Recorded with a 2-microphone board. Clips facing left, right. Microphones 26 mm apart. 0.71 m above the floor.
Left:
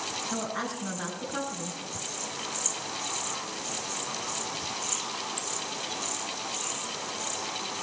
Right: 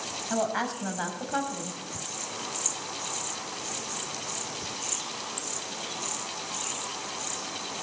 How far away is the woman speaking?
About 4.5 m.